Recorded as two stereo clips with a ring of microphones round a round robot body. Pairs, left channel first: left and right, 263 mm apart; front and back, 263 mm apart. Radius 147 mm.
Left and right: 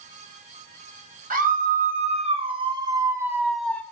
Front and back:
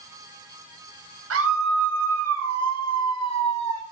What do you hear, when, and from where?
1.3 s a scream: 145° right, 3.5 m; by 3.8 s 170° left, 1.7 m